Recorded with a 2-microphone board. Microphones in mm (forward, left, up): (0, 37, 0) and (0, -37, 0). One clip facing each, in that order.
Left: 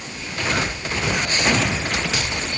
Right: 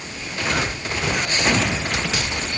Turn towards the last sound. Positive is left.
No sound to turn to.